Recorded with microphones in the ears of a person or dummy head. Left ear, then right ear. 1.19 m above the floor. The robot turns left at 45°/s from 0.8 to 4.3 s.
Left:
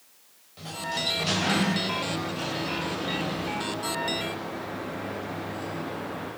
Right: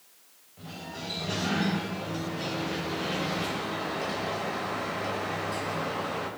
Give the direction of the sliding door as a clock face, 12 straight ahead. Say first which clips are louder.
Left 9 dB; 9 o'clock.